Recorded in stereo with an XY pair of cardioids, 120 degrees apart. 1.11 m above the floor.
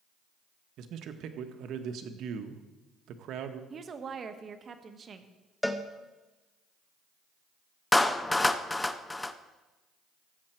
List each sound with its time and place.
0.8 s a man speaking: 65° right, 1.1 m
3.7 s a woman speaking: 40° right, 1.1 m
5.6 s a cowbell: 5° left, 0.8 m
7.9 s a clap: 10° left, 0.6 m